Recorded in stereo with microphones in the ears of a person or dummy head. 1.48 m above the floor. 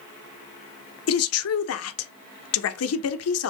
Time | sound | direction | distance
1.1 | a woman speaking | 75° left (ahead or behind) | 0.6 m